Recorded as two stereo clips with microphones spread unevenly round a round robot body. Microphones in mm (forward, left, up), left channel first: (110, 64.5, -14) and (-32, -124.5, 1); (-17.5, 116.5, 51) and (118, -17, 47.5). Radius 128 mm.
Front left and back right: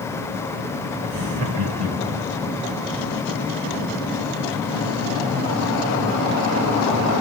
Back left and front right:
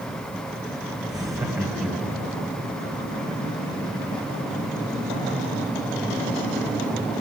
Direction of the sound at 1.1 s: 115° right.